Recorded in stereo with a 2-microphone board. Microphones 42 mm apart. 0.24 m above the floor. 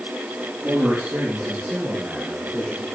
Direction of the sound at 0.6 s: 50° right (ahead or behind).